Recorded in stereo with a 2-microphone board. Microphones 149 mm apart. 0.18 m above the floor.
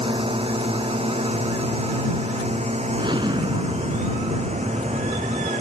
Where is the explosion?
30° right (ahead or behind).